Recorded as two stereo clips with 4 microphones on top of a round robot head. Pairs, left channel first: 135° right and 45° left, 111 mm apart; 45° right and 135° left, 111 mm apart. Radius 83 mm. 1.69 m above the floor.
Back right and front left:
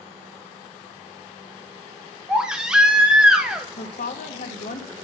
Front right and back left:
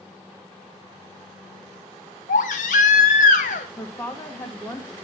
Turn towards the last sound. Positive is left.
turn(degrees=-125)